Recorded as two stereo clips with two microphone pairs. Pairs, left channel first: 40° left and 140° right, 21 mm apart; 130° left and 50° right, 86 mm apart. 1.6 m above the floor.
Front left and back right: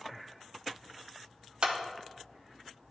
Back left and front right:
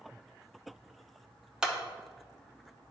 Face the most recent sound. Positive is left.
turn(degrees=-130)